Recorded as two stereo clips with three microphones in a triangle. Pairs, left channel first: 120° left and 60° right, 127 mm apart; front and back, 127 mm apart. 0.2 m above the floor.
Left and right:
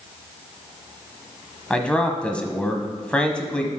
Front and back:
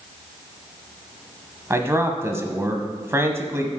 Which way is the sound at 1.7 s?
175° right.